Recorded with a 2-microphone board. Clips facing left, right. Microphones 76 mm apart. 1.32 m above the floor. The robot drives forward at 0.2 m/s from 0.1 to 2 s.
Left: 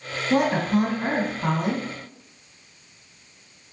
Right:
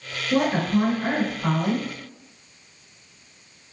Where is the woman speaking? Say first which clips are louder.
Even; 60° left (ahead or behind), 1.5 m; by 1.9 s 50° left (ahead or behind), 1.7 m.